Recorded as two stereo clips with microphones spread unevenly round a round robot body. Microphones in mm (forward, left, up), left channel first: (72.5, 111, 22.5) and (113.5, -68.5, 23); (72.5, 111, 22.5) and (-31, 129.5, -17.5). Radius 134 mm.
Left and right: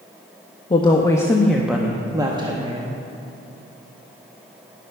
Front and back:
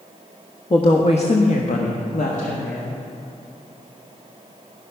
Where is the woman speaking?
45° left, 0.9 m; by 2.8 s 20° right, 1.3 m.